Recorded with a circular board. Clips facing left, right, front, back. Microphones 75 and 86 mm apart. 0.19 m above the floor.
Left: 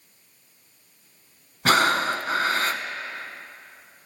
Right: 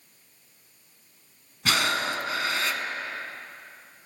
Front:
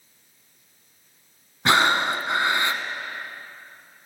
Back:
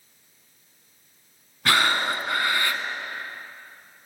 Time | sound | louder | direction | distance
1.6 | breathing | left 6 dB, front 3 dB | 60° left | 0.7 m